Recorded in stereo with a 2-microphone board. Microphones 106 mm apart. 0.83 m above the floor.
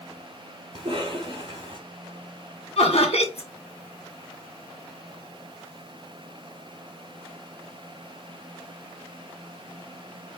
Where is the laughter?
75° left (ahead or behind), 1.8 m.